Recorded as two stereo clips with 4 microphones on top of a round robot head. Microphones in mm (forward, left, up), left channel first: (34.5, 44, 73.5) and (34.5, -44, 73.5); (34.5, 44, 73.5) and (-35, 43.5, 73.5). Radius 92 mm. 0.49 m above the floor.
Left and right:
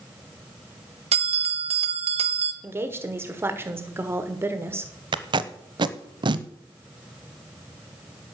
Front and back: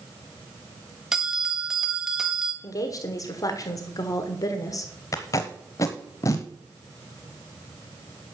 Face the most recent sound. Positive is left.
turn(degrees=-55)